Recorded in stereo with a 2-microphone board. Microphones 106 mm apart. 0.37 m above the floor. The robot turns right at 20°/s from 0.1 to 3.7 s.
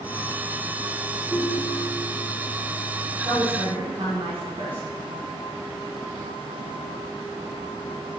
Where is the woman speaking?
50° right (ahead or behind), 2.5 m; by 4.8 s 60° right (ahead or behind), 2.5 m.